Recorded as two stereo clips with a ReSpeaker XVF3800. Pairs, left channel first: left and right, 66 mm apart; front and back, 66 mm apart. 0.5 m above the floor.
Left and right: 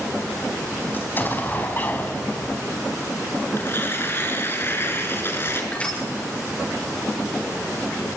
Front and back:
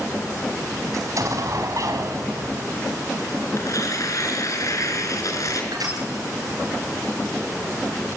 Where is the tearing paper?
35° left, 5.5 m.